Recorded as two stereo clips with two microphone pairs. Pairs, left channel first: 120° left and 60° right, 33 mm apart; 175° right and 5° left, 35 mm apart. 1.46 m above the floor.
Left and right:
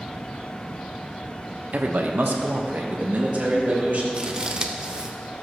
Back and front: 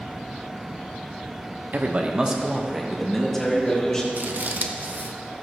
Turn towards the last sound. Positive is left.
turn(degrees=-5)